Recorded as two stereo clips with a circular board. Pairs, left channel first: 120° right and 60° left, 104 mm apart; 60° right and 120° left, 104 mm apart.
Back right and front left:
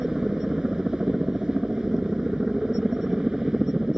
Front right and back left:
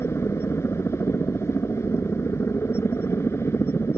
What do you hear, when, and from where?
0.0 s a helicopter: 20° right